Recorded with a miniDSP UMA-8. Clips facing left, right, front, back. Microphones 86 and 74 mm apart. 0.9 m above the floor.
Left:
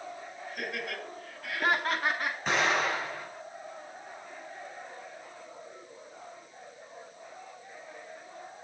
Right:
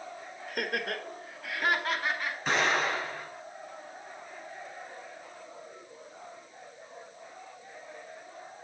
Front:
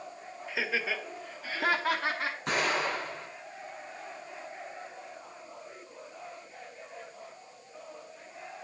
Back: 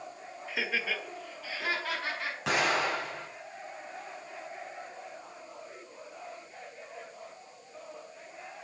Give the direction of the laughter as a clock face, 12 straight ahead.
3 o'clock.